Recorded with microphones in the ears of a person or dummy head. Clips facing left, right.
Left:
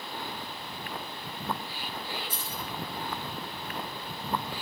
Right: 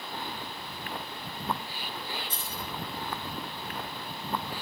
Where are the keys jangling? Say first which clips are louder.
Left 1 dB; 10° left (ahead or behind), 5.5 m.